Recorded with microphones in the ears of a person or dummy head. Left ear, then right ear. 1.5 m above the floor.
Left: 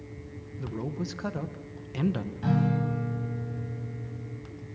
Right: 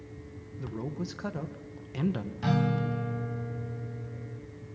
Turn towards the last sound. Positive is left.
turn(degrees=-30)  # may be behind; listen again after turning